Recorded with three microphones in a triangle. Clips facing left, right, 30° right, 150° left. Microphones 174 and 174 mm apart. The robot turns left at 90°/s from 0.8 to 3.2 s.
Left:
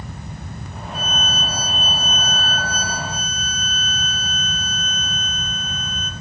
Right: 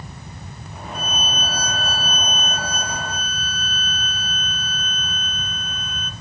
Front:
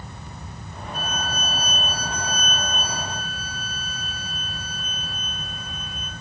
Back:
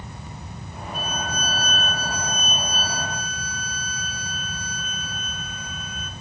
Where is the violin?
130° right, 3 m; by 6.1 s 25° left, 3 m.